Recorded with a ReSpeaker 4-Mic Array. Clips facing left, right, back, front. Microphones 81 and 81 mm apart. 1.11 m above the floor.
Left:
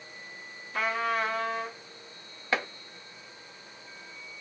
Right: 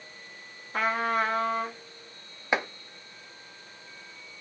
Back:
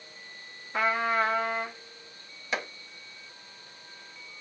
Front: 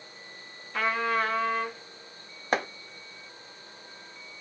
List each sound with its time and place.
0.7 s a trumpet: 120° right, 0.9 m
2.5 s chopping: 25° right, 0.5 m